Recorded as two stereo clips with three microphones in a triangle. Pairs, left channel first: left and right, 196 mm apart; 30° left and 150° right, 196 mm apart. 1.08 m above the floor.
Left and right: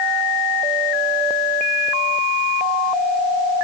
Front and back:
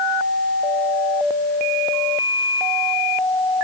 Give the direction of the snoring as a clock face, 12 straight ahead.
No snoring in this recording.